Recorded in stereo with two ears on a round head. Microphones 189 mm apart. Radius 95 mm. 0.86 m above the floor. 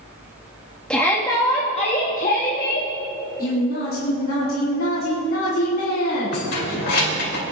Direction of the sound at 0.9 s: 5° left (ahead or behind).